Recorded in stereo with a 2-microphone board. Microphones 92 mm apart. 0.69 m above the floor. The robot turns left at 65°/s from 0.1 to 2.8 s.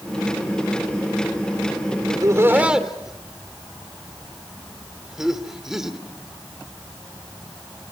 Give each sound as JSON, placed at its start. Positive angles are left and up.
{"t": 2.1, "sound": "laughter", "side_deg": -50, "distance_m": 2.5}